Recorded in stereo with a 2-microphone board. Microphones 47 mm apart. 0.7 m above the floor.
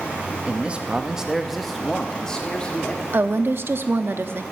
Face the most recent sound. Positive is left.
turn(degrees=-55)  # may be behind; listen again after turning